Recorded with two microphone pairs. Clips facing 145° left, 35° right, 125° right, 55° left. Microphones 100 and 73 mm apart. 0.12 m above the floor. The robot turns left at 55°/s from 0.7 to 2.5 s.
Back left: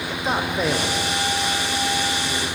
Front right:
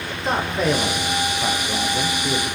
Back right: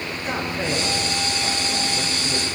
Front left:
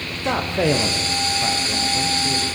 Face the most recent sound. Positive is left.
turn(degrees=-45)